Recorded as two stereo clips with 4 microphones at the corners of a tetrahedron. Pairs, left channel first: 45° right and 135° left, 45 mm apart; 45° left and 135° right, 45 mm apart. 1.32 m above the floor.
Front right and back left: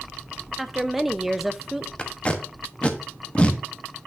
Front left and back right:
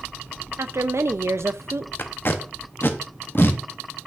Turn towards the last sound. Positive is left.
turn(degrees=15)